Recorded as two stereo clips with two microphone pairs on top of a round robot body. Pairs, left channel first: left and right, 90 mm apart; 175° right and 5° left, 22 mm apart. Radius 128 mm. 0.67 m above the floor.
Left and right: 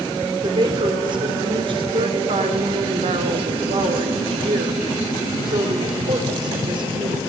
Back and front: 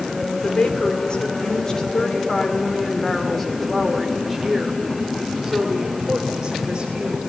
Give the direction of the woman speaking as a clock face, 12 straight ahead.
4 o'clock.